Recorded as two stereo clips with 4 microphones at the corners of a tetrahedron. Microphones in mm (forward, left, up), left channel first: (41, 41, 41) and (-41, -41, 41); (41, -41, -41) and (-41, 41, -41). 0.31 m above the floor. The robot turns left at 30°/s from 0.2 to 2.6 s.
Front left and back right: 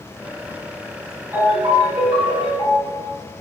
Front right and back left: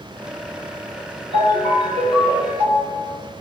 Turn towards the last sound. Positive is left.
turn(degrees=-110)